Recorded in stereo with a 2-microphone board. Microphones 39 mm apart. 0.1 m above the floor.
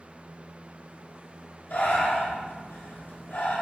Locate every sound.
1.7 s breathing: 60° left (ahead or behind), 1.8 m